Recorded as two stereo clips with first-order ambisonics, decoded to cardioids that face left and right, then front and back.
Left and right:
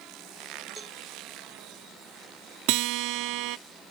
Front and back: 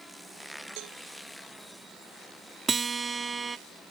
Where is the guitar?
105° right.